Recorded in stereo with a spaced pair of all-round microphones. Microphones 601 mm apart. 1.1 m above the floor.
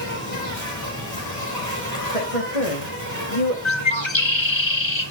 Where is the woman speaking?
75° left (ahead or behind), 1.5 m.